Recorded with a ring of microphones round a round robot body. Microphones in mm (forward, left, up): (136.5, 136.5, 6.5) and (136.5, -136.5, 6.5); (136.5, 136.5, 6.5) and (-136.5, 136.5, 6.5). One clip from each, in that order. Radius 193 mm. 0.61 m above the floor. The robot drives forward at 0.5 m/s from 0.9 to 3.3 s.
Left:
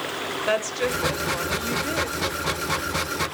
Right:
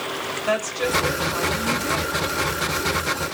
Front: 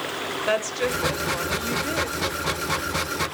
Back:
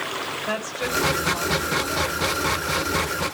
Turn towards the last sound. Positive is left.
turn(degrees=40)